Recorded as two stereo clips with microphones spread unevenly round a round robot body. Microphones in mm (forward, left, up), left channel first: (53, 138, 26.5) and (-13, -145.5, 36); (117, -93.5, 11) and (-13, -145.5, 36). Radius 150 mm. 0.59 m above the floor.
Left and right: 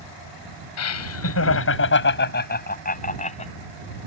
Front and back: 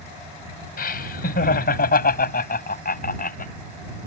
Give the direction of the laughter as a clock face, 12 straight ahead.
11 o'clock.